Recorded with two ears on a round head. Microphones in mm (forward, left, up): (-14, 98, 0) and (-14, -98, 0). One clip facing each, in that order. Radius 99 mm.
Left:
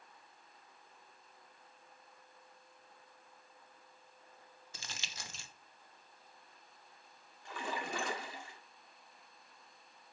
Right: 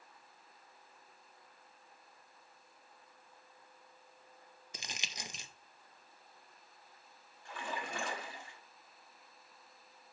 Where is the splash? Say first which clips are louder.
Left 2 dB; 60° left (ahead or behind), 1.7 m.